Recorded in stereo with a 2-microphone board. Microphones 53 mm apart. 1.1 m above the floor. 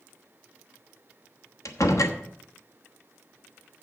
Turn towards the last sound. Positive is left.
turn(degrees=70)  # may be behind; listen again after turning